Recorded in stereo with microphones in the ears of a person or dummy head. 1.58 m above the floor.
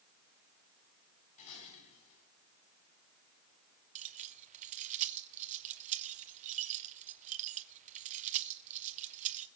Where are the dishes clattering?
40° left (ahead or behind), 9 m.